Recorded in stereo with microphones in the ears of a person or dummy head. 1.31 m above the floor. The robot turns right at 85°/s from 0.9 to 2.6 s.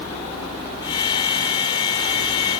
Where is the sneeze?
No sneeze in this recording.